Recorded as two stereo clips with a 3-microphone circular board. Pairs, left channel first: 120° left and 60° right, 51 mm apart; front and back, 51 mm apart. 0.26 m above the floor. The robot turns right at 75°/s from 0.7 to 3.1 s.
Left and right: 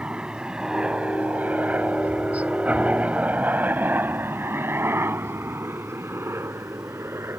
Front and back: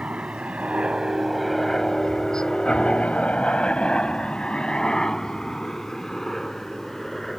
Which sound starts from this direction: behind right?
A helicopter, at 0.0 s.